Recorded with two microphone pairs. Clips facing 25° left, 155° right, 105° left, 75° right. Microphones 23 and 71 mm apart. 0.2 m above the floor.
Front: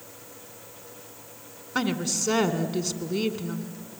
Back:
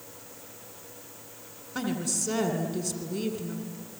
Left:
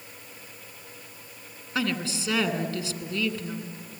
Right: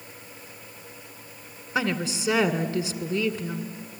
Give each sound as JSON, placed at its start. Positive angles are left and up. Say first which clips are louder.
{"t": 1.8, "sound": "a woman speaking", "louder": "front 4 dB, right 2 dB", "azimuth_deg": -10, "distance_m": 1.9}